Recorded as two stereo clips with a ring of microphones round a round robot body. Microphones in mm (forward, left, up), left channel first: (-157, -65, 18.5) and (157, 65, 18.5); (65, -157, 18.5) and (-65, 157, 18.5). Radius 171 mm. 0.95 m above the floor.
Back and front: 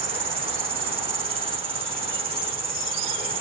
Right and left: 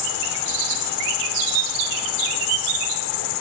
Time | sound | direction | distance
0.0 | an insect | 50° right | ?